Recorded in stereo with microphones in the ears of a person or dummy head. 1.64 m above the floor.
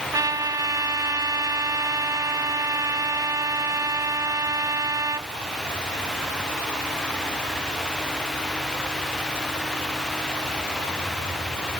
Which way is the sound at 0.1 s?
20° right (ahead or behind).